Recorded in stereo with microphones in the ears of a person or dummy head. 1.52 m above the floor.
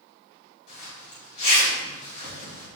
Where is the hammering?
No hammering in this recording.